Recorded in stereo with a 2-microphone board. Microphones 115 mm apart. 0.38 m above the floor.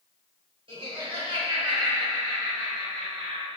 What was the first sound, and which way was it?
Laughter, 50° right (ahead or behind).